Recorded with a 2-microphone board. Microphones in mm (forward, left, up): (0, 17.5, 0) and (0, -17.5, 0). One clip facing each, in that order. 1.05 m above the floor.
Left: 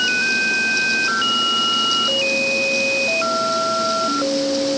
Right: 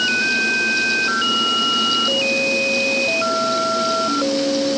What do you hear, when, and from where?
Only background noise.